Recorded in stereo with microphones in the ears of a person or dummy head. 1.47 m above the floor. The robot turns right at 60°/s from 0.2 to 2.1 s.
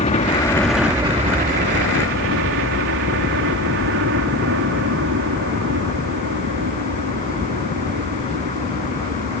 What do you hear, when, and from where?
0.0 s a helicopter: 150° left; by 9.4 s 100° right